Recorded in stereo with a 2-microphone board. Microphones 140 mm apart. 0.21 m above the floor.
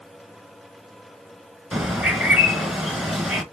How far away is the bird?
About 0.9 m.